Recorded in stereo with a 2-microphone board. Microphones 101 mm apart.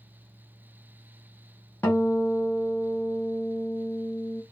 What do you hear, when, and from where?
1.8 s a guitar: 20° left (ahead or behind), 1.2 m